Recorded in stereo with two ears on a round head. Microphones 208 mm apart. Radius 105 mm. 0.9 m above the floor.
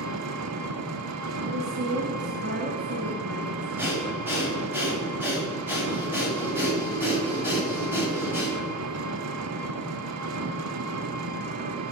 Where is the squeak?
No squeak in this recording.